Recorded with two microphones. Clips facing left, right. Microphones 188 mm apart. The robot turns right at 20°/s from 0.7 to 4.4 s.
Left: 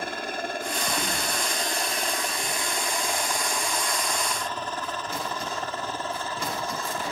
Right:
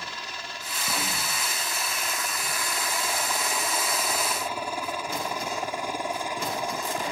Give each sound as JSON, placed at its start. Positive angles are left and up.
{"t": 0.0, "sound": "a helicopter", "side_deg": 55}